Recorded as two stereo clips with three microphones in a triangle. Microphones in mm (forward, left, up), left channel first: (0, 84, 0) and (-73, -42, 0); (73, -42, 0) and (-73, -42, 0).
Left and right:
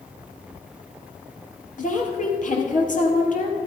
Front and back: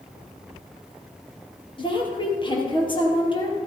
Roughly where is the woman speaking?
Ahead left.